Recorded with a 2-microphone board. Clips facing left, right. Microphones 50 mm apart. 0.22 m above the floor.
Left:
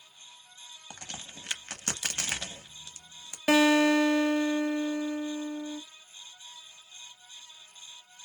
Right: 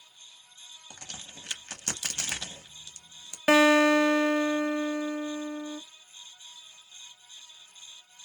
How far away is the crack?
About 0.8 m.